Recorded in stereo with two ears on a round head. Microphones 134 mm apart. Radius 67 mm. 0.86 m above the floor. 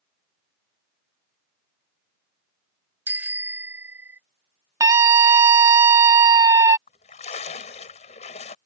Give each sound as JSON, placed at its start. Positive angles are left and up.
{"t": 3.1, "sound": "a bicycle bell", "side_deg": -15}
{"t": 4.8, "sound": "a scream", "side_deg": -20}
{"t": 6.9, "sound": "a splash", "side_deg": 50}